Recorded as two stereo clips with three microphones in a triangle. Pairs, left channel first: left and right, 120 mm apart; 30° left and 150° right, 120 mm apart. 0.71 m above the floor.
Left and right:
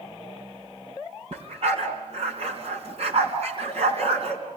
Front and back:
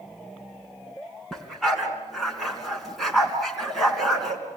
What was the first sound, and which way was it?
A dog barking, 60° right.